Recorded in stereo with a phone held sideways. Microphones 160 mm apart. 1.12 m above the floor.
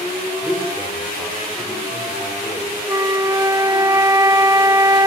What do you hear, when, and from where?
0.4 s a man speaking: 10° left (ahead or behind), 4.5 m
2.9 s a flute: 20° right (ahead or behind), 0.6 m